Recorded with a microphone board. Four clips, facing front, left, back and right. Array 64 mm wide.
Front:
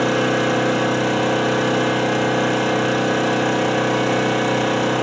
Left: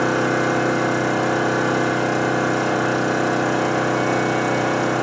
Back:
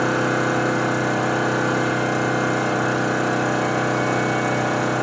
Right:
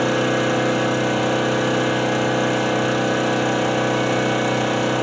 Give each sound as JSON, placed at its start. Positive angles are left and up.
{"t": 0.0, "sound": "an engine running", "azimuth_deg": -35, "distance_m": 1.9}